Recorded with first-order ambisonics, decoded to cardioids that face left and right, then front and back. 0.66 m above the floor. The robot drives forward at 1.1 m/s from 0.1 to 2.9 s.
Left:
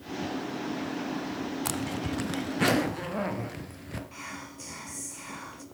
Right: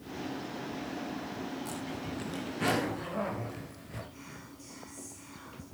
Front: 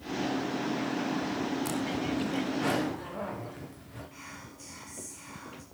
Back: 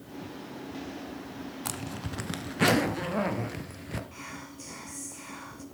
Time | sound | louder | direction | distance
1.6 | a zipper | left 6 dB, front 6 dB | 110° left | 1.0 m
4.1 | whispering | left 8 dB, back 4 dB | 110° left | 0.8 m